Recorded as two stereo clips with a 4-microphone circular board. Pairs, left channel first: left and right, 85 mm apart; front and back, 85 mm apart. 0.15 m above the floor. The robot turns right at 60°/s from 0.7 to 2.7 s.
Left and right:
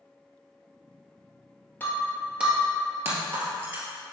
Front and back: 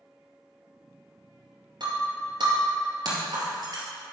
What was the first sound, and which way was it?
Breaking glass, 160° left.